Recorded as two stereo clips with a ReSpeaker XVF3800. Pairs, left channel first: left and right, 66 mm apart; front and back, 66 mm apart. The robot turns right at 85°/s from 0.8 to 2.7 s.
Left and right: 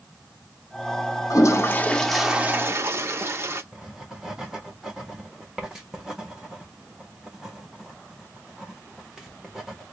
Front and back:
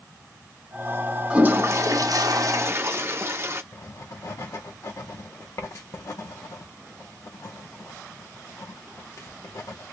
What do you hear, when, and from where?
1.3 s a toilet flushing: 110° left, 0.5 m; by 3.6 s 130° right, 0.5 m
3.7 s writing: 10° right, 1.1 m